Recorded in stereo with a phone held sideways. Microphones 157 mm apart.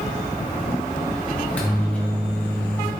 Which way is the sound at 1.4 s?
10° left (ahead or behind).